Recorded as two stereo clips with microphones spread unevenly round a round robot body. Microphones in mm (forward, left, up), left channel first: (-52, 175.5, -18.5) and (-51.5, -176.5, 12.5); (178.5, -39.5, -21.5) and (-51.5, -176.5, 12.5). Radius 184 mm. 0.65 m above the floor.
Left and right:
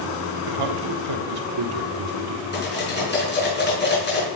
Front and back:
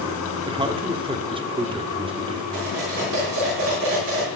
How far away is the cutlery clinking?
About 5 m.